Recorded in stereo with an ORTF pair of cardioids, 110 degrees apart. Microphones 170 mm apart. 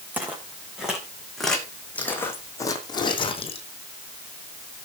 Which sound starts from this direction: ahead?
Footsteps, at 0.1 s.